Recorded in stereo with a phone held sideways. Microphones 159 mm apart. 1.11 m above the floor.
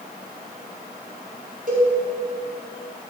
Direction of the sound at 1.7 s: 55° right (ahead or behind).